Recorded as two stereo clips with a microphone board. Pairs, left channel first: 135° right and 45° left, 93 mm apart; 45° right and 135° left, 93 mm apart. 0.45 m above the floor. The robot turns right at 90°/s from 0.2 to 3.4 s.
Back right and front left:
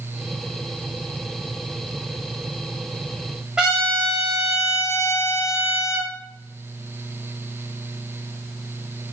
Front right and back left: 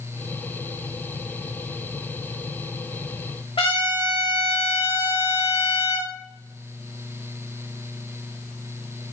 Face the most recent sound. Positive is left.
turn(degrees=-35)